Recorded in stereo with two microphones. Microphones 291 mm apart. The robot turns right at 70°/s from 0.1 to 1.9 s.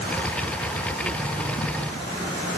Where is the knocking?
I don't hear knocking.